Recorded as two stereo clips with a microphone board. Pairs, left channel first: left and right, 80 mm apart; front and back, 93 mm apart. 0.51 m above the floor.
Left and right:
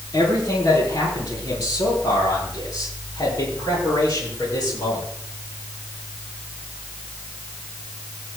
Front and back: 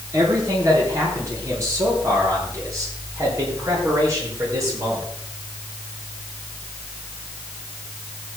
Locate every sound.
0.1 s a man speaking: 125° left, 9 m